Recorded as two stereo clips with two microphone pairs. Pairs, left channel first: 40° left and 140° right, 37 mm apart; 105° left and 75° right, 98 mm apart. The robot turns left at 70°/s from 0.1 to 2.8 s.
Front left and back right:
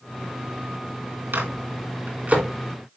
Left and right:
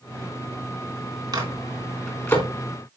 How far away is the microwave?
About 3.5 m.